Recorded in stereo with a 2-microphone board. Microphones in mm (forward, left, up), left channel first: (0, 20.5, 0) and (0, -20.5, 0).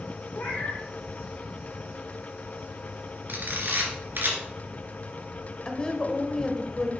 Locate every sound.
0.3 s a cat meowing: 60° left (ahead or behind), 4 m
3.3 s a camera shutter: 60° right (ahead or behind), 2.5 m
5.7 s a woman speaking: 25° left (ahead or behind), 1.2 m